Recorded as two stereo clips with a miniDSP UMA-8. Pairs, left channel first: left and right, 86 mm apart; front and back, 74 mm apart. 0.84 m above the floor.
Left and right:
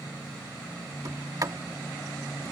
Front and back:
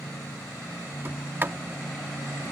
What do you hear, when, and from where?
1.1 s a sliding door: 125° right